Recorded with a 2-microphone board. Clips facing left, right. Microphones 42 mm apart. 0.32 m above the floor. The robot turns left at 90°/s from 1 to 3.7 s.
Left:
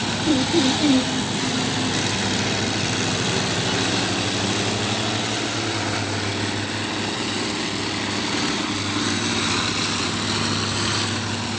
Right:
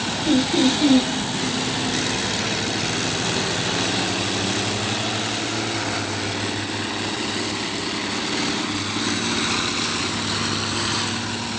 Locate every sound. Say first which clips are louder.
0.2 s laughter: right 1 dB; 40° right (ahead or behind), 1.4 m